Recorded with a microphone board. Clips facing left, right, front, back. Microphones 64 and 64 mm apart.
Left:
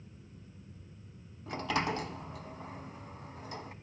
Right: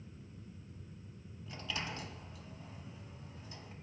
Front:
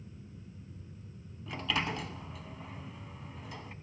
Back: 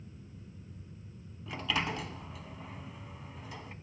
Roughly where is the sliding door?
Left.